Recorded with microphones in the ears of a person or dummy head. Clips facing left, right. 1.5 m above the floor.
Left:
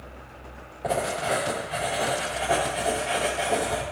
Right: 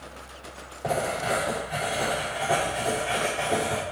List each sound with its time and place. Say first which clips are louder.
0.8 s writing: left 1 dB; 5° left (ahead or behind), 3.5 m